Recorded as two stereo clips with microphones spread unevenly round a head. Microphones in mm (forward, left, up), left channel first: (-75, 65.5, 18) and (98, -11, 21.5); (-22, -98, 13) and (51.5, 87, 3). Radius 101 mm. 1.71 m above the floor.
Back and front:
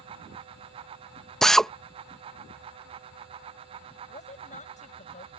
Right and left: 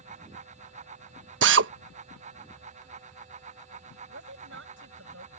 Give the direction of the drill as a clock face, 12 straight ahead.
10 o'clock.